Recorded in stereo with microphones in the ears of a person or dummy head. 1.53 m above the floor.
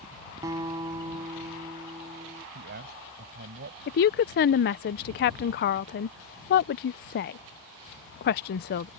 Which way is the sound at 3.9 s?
50° left (ahead or behind).